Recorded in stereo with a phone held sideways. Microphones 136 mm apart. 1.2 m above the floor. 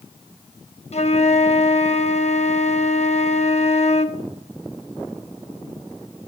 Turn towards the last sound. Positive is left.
turn(degrees=50)  # may be behind; listen again after turning